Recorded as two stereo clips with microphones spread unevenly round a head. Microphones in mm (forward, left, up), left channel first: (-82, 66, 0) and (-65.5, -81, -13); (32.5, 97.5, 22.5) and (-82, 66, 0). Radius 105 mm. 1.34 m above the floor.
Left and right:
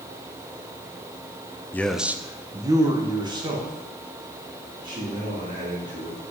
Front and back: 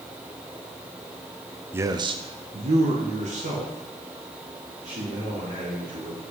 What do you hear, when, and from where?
1.7 s a man speaking: 170° left, 0.5 m; by 6.2 s 140° right, 4.5 m